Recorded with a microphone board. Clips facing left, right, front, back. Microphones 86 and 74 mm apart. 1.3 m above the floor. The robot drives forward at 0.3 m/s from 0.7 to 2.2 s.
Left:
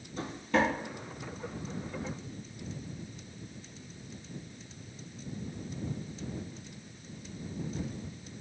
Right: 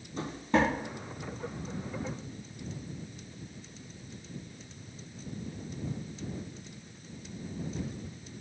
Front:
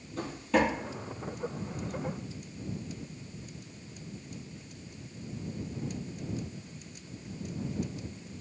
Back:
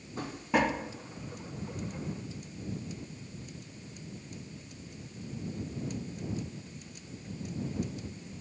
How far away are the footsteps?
About 1.5 m.